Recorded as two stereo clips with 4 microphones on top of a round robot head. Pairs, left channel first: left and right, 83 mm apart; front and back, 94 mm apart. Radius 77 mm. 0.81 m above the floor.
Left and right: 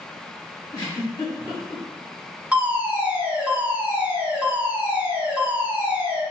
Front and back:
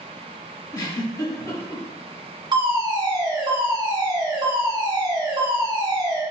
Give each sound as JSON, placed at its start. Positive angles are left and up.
{"t": 0.7, "sound": "a giggle", "azimuth_deg": 40, "distance_m": 2.0}
{"t": 2.5, "sound": "a fire alarm", "azimuth_deg": -160, "distance_m": 2.0}